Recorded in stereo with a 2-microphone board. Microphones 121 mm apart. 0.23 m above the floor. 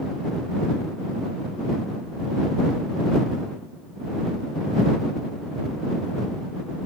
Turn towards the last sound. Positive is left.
No sound to turn to.